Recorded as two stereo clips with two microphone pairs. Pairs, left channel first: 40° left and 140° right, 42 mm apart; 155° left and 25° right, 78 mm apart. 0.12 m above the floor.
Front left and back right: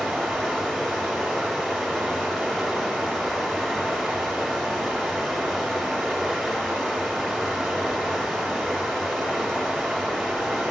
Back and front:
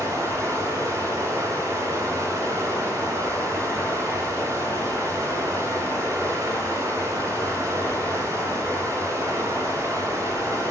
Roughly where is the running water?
Ahead right.